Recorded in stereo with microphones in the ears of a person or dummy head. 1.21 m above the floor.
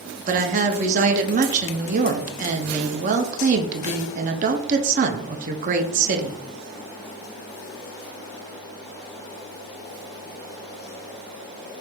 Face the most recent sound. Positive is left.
turn(degrees=-40)  # may be behind; listen again after turning